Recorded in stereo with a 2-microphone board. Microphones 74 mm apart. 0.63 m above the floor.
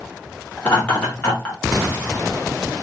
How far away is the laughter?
About 1.6 m.